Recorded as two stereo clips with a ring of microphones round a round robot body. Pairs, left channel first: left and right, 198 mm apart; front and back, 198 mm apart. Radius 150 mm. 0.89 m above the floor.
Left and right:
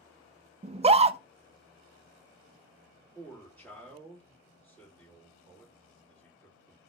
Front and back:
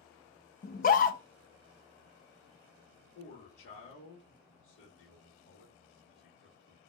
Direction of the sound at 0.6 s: 35° right.